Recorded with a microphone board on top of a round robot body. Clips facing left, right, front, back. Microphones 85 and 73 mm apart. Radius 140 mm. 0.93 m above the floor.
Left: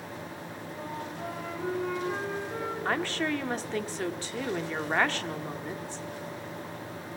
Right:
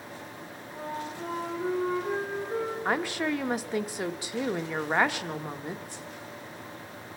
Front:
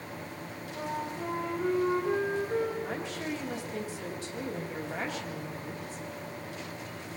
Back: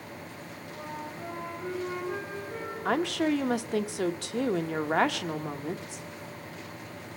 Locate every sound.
0.8 s a flute: 35° right, 4.5 m
2.9 s a woman speaking: 165° right, 1.2 m